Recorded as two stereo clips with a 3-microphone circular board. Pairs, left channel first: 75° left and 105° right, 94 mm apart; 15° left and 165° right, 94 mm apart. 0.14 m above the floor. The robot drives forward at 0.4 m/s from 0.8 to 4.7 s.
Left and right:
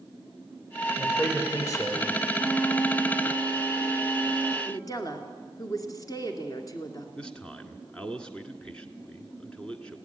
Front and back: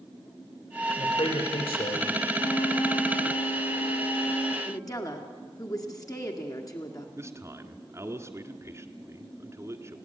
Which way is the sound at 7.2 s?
150° left.